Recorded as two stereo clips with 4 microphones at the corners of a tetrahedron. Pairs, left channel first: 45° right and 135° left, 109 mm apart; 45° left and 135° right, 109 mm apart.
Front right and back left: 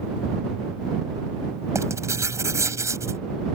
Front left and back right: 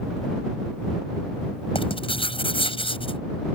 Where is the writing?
75° left.